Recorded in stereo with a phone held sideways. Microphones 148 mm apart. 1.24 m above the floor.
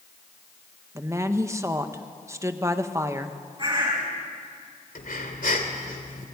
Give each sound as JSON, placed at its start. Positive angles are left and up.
{"t": 0.9, "sound": "a woman speaking", "side_deg": -20, "distance_m": 1.3}
{"t": 3.6, "sound": "a bird", "side_deg": -35, "distance_m": 5.5}
{"t": 5.0, "sound": "breathing", "side_deg": 70, "distance_m": 2.5}